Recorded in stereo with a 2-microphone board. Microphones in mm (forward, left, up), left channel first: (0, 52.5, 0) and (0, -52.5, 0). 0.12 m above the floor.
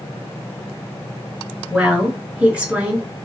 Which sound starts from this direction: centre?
A woman speaking, at 1.7 s.